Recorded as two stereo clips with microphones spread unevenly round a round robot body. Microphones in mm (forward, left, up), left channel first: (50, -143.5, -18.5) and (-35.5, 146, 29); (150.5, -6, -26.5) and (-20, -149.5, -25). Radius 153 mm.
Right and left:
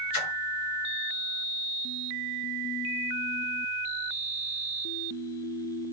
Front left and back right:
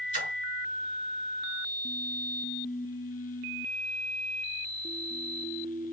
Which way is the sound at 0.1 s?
85° right.